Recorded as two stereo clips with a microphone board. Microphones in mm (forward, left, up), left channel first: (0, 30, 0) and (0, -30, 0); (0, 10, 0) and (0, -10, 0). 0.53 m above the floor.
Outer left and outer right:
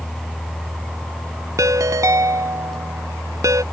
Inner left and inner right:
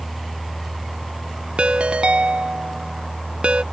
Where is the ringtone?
70° right (ahead or behind).